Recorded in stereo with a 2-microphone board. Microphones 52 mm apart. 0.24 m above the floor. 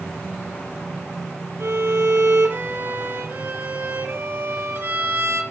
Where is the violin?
50° right (ahead or behind), 2 m.